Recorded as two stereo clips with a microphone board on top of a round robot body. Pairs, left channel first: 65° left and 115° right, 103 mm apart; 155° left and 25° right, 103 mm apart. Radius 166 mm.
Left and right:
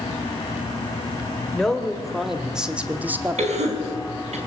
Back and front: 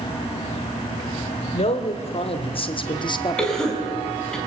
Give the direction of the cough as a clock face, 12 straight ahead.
4 o'clock.